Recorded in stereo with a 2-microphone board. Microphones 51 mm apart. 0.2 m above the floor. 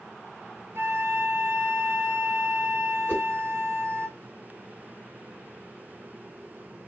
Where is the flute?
60° right (ahead or behind), 1.1 m.